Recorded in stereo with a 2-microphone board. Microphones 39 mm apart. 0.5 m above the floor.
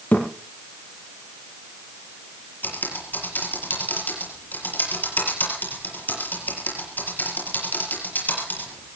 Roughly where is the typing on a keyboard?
Left.